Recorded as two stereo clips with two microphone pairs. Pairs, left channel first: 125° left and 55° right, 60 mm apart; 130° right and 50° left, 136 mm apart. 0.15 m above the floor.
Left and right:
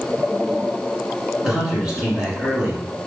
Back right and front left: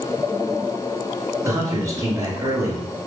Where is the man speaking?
5° left, 1.7 m.